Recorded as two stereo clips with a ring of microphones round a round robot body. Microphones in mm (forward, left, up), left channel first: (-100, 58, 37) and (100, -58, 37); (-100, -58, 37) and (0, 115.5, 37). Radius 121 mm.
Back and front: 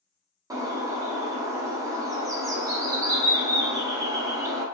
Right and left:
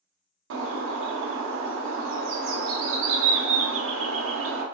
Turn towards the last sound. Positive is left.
turn(degrees=45)